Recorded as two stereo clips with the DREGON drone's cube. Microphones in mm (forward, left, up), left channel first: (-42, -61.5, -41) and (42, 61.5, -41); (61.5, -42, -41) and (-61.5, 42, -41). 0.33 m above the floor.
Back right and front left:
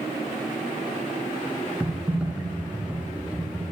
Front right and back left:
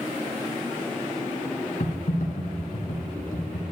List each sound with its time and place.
1.8 s typing on a keyboard: 30° right, 1.0 m